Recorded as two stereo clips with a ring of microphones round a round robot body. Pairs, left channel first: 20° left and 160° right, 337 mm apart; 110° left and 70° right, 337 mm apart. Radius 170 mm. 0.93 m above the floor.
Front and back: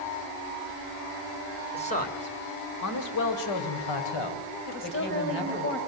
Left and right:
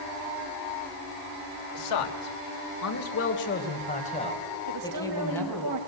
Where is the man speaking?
95° left, 3 m; by 5.7 s 25° left, 6.5 m.